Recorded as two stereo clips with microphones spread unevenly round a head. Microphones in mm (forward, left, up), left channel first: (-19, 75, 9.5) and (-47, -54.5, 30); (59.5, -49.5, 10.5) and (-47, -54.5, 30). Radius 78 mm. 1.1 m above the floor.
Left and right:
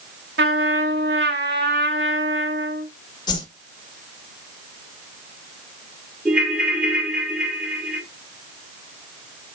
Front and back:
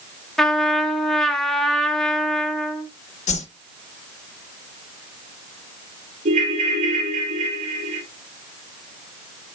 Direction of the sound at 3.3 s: 15° left.